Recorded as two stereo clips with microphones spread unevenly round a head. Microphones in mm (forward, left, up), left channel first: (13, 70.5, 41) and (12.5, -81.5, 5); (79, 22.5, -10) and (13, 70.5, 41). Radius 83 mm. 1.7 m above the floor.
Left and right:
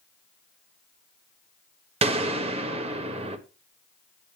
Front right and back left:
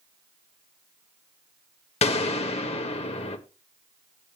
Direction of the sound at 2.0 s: 35° right.